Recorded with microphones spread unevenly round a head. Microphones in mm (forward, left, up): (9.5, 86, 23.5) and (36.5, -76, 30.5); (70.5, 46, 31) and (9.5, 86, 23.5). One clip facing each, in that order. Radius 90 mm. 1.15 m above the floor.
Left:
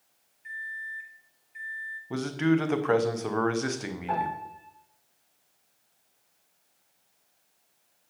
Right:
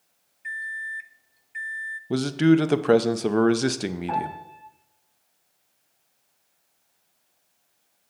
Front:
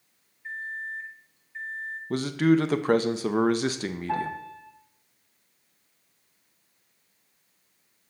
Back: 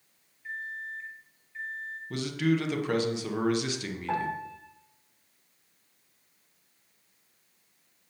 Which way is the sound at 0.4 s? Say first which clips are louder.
Right 5 dB, front 3 dB; 100° right.